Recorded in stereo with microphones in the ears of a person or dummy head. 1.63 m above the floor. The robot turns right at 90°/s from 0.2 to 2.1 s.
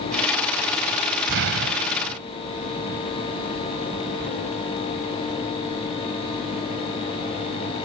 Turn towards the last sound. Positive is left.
turn(degrees=-50)